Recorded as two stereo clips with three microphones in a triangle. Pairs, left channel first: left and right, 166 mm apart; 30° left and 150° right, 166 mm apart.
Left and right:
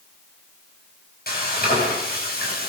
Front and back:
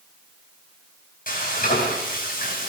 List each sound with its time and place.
1.3 s frying: 65° left, 10 m